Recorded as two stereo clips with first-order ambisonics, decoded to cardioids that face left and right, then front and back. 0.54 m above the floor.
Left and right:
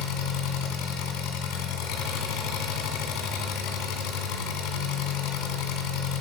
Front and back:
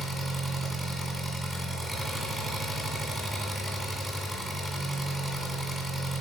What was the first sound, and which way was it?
An engine running, 95° left.